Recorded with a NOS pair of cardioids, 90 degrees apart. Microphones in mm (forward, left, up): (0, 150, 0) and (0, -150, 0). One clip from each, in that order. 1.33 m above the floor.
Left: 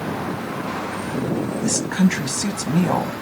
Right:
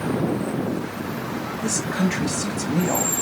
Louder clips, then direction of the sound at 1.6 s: Left 1 dB; 35° left.